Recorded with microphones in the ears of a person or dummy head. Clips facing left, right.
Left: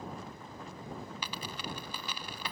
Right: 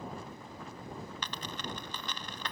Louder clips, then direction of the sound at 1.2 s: Even; 15° left (ahead or behind).